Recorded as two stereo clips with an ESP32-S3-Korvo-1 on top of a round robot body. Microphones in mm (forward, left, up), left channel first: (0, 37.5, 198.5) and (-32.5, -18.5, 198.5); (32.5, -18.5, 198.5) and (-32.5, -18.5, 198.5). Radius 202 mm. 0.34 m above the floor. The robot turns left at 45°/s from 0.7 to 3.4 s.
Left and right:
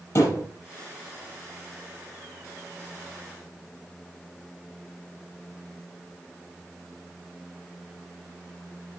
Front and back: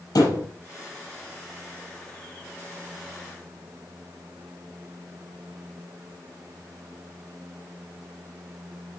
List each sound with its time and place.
0.1 s a thud: 20° left, 6 m